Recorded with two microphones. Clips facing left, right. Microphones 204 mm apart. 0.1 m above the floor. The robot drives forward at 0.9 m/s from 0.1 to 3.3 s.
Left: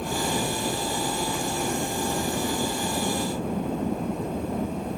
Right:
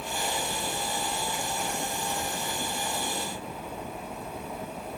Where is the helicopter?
50° left (ahead or behind); by 5.0 s 55° left (ahead or behind).